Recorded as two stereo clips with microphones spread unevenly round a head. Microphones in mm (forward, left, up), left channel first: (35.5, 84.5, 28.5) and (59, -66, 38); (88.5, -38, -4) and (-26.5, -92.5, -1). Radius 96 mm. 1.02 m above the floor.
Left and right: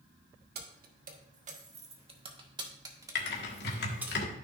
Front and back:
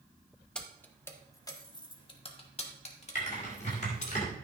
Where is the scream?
No scream in this recording.